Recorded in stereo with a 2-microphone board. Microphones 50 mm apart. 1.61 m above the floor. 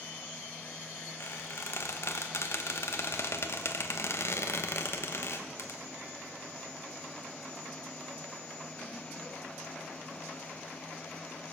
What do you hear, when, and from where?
1.2 s a squeak: 60° left (ahead or behind), 1.1 m